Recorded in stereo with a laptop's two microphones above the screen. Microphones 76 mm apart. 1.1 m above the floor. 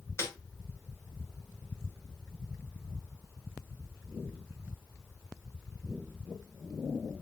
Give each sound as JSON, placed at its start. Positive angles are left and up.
{"t": 0.2, "sound": "a snare drum", "side_deg": 35, "distance_m": 4.0}